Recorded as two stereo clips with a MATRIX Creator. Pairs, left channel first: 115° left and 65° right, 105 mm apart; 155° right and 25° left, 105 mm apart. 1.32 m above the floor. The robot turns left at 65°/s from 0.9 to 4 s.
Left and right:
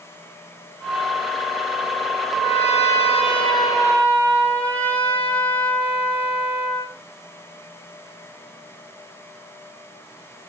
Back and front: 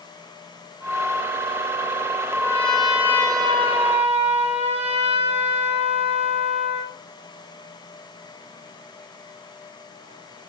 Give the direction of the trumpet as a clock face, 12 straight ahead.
7 o'clock.